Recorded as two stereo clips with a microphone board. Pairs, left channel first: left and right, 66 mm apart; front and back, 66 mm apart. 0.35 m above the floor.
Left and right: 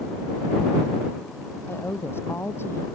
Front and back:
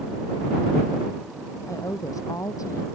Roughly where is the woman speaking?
Ahead left.